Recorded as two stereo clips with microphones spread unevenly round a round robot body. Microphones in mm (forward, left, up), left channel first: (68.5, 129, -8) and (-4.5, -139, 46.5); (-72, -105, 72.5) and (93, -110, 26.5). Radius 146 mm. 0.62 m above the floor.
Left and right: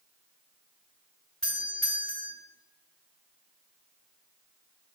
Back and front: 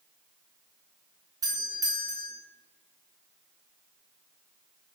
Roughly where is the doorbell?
Ahead.